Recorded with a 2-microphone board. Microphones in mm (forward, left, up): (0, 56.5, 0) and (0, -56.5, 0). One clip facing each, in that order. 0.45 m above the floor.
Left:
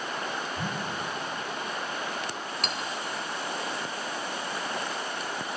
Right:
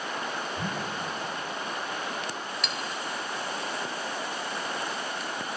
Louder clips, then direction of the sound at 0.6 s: Even; 5° left (ahead or behind).